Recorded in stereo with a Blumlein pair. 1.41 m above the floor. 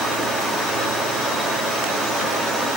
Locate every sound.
0.0 s running water: 5° right, 1.8 m